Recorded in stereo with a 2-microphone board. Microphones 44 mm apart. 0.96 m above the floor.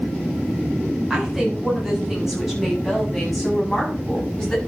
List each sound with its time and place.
1.1 s a woman speaking: 10° right (ahead or behind), 7 m; by 4.6 s 5° left (ahead or behind), 6.5 m